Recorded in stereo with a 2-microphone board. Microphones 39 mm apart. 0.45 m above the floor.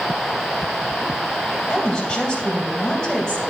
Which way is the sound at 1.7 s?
20° left (ahead or behind).